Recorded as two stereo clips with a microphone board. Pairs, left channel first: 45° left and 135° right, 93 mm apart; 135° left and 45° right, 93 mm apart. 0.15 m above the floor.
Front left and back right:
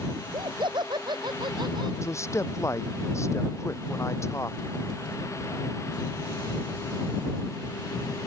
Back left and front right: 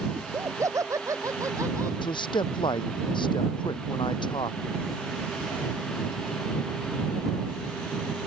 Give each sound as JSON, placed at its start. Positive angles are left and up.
{"t": 0.1, "sound": "laughter", "azimuth_deg": -100}
{"t": 2.0, "sound": "a man speaking", "azimuth_deg": 105}